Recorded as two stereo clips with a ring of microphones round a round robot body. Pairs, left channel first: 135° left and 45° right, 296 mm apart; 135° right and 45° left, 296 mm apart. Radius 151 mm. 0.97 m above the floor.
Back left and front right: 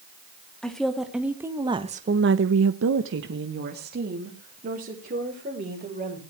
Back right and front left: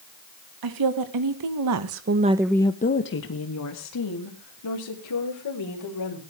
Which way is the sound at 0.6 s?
45° left.